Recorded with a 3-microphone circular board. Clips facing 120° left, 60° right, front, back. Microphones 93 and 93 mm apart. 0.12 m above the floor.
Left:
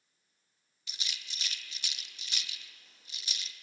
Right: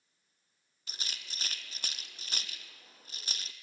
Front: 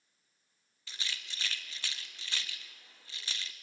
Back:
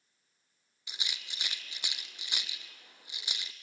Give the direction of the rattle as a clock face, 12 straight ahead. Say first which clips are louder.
Even, front 1 dB; 4 o'clock.